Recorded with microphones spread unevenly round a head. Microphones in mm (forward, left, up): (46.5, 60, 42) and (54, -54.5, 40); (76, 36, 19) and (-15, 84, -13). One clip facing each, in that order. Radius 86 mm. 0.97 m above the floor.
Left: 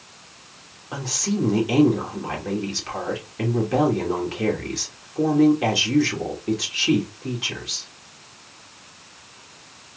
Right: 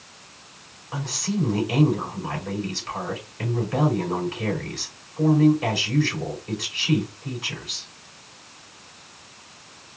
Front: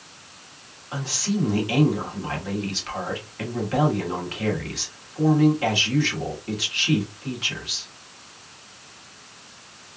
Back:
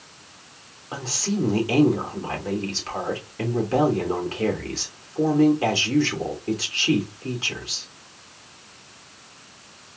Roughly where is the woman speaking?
Left.